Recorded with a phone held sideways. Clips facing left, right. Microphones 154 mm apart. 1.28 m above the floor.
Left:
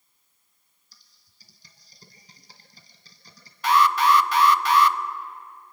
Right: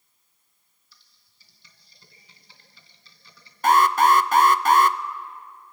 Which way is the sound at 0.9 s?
40° left (ahead or behind).